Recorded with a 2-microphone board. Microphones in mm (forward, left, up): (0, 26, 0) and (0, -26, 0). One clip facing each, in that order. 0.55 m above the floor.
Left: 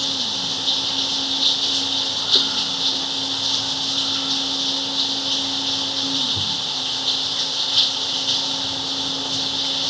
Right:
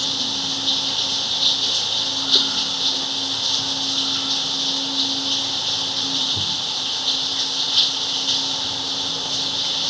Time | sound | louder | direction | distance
0.0 | running water | even | centre (ahead or behind) | ?